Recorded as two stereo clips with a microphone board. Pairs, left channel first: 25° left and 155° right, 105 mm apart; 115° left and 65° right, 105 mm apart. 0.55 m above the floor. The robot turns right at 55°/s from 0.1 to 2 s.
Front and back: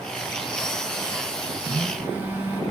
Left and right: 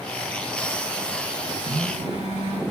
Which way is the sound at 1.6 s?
105° right.